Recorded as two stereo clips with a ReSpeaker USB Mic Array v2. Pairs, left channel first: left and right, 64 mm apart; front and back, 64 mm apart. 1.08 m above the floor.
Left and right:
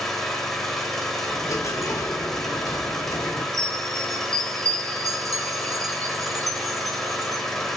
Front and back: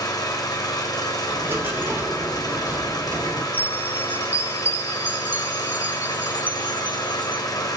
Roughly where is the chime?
Behind right.